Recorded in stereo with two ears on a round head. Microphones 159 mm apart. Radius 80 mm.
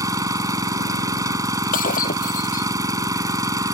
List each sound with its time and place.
0.0 s an engine running: 20° right (ahead or behind)
1.7 s breaking glass: 50° left (ahead or behind)